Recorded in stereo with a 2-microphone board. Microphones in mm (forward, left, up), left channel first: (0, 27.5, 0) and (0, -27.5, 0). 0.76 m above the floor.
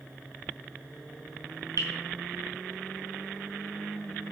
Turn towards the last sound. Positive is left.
turn(degrees=-80)